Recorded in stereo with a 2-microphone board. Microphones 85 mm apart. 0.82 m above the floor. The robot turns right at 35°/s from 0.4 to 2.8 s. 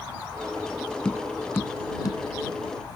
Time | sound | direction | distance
1.1 | tapping | 10° left (ahead or behind) | ?